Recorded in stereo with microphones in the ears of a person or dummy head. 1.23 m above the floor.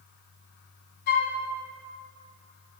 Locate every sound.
1.1 s a flute: 55° left (ahead or behind), 2.5 m